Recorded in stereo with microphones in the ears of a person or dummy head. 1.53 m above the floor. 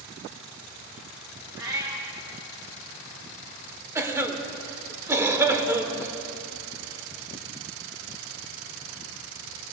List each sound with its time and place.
1.6 s a cat meowing: 15° right (ahead or behind), 1.0 m
4.0 s a cough: 15° right (ahead or behind), 1.3 m